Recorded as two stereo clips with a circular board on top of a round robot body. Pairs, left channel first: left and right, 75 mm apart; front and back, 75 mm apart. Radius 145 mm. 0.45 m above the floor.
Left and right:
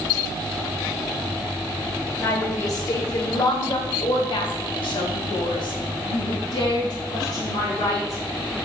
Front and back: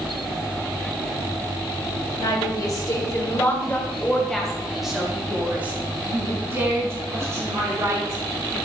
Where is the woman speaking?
35° left, 3 m; by 8.6 s 130° left, 6 m.